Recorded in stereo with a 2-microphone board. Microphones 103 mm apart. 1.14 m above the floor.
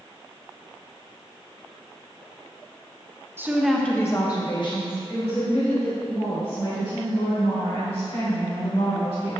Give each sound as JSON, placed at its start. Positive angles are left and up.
{"t": 3.4, "sound": "a woman speaking", "side_deg": -20, "distance_m": 1.0}